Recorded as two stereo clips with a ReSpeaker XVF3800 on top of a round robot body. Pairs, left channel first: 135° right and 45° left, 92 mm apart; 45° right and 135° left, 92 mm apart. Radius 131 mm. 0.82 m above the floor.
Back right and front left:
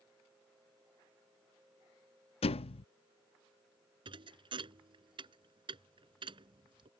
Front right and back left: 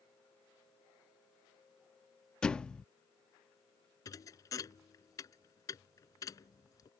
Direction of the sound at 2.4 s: 125° right.